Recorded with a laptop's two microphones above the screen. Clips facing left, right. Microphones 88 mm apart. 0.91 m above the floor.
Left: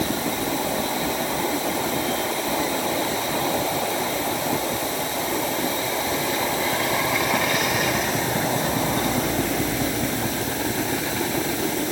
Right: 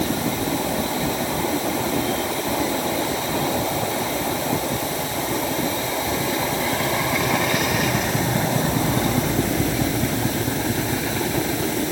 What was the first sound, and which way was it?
Only background noise.